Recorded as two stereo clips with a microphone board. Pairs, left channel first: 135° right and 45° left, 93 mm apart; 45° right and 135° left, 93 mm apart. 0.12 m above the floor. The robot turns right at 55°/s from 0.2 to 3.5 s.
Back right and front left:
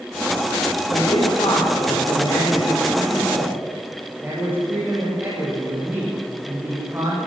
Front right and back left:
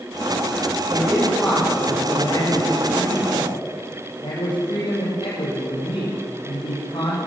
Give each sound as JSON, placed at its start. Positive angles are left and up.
{"t": 0.9, "sound": "a man speaking", "azimuth_deg": -165, "distance_m": 7.0}